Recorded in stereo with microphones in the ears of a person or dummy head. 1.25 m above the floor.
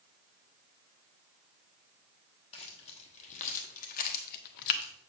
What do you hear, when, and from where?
2.5 s keys jangling: 35° left (ahead or behind), 1.5 m; by 4.9 s 50° left (ahead or behind), 0.6 m